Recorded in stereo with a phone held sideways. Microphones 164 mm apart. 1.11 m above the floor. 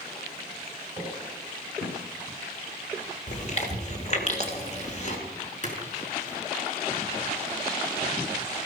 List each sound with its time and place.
1.0 s footsteps: 25° left (ahead or behind), 7 m; by 2.0 s 35° left (ahead or behind), 6 m
3.3 s chewing: 45° left (ahead or behind), 3 m
5.6 s a splash: 45° left (ahead or behind), 5.5 m